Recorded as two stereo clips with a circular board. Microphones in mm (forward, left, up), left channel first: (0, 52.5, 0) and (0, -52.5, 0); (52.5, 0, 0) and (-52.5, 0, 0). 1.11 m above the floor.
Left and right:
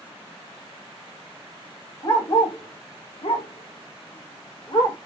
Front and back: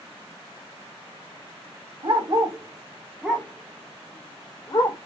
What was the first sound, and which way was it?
A dog barking, 145° left.